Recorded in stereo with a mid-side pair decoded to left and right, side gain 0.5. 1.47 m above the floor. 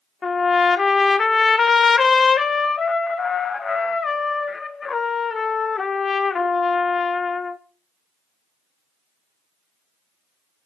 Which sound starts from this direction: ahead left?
A trumpet, at 0.2 s.